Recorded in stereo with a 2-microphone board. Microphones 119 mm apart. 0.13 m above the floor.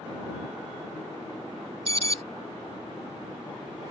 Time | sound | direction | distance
1.9 | an alarm | 55° right (ahead or behind) | ?